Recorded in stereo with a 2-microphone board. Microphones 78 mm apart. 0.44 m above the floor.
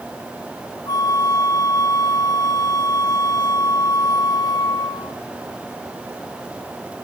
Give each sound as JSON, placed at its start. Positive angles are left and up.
{"t": 0.9, "sound": "a flute", "side_deg": 60, "distance_m": 1.5}